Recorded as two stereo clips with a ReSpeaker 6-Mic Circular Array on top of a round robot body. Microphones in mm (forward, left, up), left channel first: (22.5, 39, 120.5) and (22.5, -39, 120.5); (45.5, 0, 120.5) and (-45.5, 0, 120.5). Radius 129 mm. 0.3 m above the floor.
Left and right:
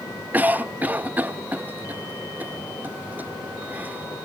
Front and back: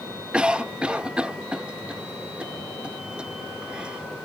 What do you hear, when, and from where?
0.3 s a cough: 115° right